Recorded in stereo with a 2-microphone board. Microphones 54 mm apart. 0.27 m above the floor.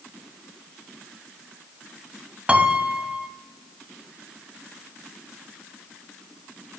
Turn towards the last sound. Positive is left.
turn(degrees=-20)  # may be behind; listen again after turning